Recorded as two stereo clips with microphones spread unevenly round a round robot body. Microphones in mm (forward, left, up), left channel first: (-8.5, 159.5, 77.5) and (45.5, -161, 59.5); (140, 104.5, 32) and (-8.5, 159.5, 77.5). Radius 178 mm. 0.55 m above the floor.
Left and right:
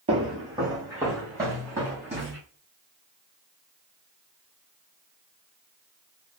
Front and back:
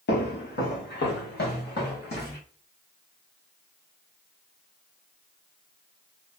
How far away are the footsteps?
About 0.9 m.